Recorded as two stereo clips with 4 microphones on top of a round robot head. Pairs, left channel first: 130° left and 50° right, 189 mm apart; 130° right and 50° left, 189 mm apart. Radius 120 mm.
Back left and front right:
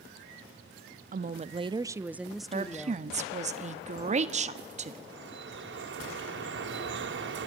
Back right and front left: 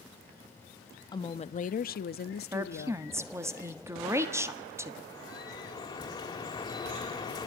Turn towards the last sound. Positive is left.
turn(degrees=-60)